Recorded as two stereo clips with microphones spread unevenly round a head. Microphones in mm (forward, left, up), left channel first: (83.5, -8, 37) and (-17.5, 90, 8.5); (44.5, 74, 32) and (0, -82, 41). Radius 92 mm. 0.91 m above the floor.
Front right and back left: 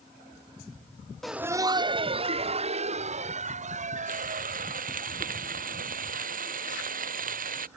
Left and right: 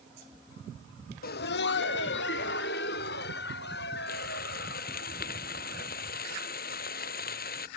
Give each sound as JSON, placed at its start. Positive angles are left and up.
{"t": 1.2, "sound": "laughter", "azimuth_deg": 45}
{"t": 4.1, "sound": "frying", "azimuth_deg": 115}